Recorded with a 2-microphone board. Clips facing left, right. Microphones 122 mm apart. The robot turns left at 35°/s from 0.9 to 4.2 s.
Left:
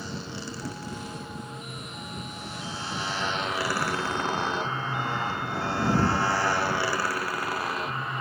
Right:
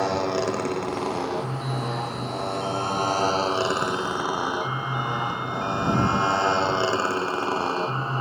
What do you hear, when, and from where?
0.0 s a motorcycle: 70° right (ahead or behind); by 8.2 s 30° right (ahead or behind)